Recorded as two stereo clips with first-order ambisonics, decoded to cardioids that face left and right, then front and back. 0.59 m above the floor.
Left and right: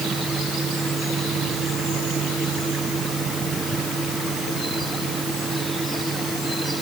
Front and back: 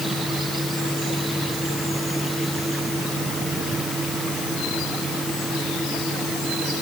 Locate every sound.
Only background noise.